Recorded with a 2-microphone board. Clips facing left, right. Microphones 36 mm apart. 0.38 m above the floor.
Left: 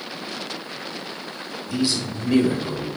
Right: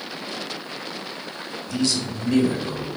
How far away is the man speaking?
About 1.2 m.